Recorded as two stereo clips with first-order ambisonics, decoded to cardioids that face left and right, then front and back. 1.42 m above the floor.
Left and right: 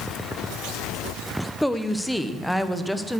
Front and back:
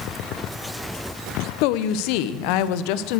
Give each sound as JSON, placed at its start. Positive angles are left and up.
{"t": 1.6, "sound": "a woman speaking", "azimuth_deg": 5, "distance_m": 0.9}